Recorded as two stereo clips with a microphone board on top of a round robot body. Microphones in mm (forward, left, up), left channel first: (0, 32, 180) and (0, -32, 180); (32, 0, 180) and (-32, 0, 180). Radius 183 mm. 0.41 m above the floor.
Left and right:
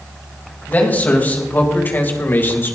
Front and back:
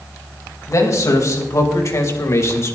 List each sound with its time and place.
0.7 s a man speaking: 30° left, 4 m; by 2.8 s 40° left, 3 m